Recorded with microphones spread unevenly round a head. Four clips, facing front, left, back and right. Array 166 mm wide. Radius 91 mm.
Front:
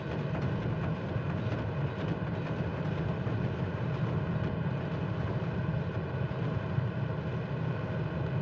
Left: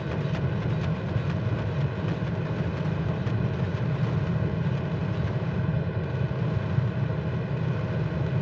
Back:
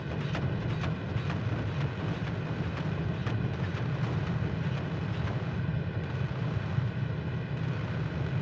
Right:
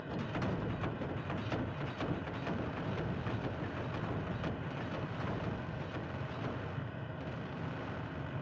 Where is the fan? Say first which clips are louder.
Left 8 dB, even; 80° left.